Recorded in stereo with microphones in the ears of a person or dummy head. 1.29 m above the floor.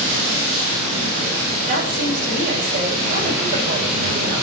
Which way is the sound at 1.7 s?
40° right (ahead or behind).